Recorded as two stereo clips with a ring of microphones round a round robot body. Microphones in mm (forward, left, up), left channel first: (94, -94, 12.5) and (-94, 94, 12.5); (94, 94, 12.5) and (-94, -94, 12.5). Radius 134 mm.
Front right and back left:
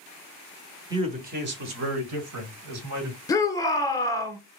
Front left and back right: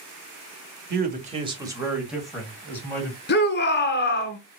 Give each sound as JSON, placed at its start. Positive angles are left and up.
{"t": 0.9, "sound": "a man speaking", "azimuth_deg": -160, "distance_m": 1.3}
{"t": 3.3, "sound": "a shout", "azimuth_deg": 25, "distance_m": 1.2}